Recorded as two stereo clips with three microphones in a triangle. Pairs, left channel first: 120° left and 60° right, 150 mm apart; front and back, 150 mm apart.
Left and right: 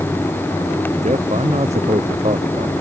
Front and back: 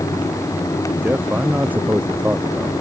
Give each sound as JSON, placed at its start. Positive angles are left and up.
{"t": 1.0, "sound": "a man speaking", "azimuth_deg": -100}